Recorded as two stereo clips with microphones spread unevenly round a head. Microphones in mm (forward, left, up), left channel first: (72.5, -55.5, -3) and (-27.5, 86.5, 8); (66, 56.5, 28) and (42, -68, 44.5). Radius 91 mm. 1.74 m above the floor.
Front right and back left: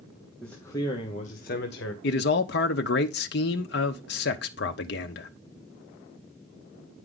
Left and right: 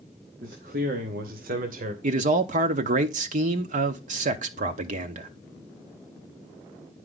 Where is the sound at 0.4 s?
140° right, 1.0 m; by 1.9 s 90° right, 1.2 m.